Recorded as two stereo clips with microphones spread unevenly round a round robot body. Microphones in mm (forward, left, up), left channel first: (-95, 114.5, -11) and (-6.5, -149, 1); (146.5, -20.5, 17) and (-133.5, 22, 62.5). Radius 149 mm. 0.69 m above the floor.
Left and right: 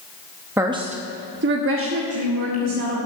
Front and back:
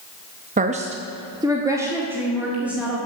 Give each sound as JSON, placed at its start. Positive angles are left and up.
{"t": 0.6, "sound": "a woman speaking", "azimuth_deg": -145, "distance_m": 0.8}